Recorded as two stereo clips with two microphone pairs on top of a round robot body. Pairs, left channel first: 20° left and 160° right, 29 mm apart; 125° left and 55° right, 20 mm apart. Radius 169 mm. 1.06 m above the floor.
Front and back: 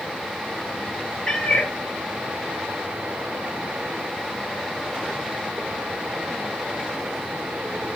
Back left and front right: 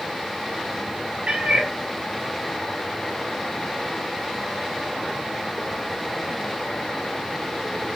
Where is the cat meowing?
55° right, 1.9 m.